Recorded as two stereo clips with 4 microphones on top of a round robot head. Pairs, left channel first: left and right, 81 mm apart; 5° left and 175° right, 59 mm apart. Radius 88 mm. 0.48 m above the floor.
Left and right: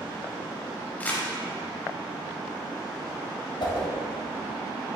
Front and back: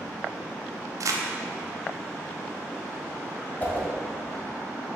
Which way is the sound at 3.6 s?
65° left.